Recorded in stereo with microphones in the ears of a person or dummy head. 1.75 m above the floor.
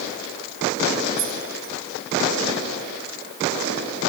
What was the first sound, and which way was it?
Keys jangling, 60° right (ahead or behind).